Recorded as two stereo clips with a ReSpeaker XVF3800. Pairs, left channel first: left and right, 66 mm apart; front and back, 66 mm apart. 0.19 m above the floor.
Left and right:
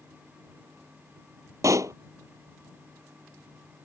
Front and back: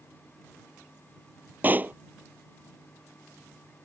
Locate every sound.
1.6 s a pop: 120° right